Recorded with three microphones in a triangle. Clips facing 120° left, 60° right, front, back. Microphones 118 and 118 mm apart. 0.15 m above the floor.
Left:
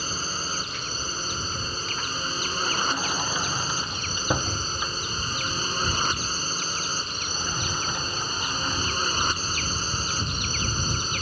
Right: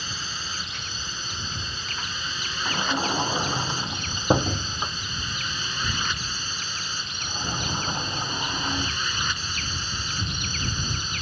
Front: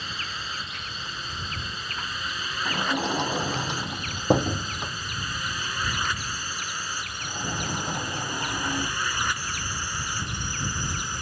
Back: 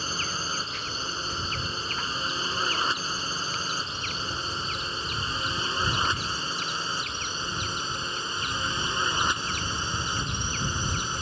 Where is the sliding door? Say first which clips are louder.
Right 4 dB, front 4 dB; 5° left.